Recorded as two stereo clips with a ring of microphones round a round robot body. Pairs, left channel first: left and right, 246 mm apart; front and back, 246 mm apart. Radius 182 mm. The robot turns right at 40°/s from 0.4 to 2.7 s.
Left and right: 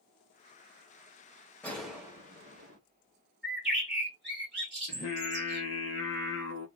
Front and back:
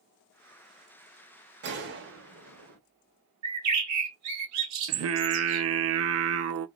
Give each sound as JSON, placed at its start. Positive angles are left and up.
{"t": 1.6, "sound": "a gunshot", "azimuth_deg": 175, "distance_m": 0.8}
{"t": 3.4, "sound": "a bird", "azimuth_deg": -175, "distance_m": 1.2}
{"t": 4.9, "sound": "singing", "azimuth_deg": 145, "distance_m": 0.6}